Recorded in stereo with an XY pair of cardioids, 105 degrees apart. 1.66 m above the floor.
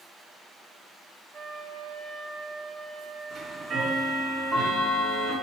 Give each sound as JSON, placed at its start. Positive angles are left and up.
{"t": 1.3, "sound": "a flute", "azimuth_deg": -60, "distance_m": 0.9}
{"t": 3.3, "sound": "ticking", "azimuth_deg": -50, "distance_m": 2.5}